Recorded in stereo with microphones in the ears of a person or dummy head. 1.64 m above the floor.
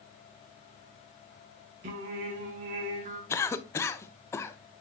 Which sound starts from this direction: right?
Singing, at 1.8 s.